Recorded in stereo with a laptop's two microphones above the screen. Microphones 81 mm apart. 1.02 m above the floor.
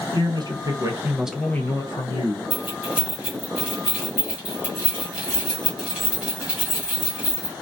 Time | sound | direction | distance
0.1 | a man speaking | 60° right (ahead or behind) | 1.1 m
2.5 | keys jangling | 15° right (ahead or behind) | 1.4 m